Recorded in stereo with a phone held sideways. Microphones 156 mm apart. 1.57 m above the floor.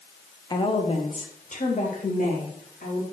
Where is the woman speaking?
25° left (ahead or behind), 0.8 m; by 3.0 s 60° left (ahead or behind), 3 m.